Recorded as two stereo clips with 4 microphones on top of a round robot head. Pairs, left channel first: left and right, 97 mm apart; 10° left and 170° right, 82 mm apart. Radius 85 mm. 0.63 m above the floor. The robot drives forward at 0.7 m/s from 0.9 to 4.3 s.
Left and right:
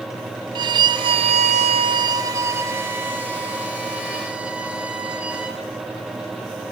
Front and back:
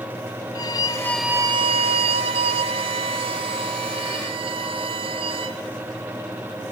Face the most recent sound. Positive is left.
turn(degrees=-170)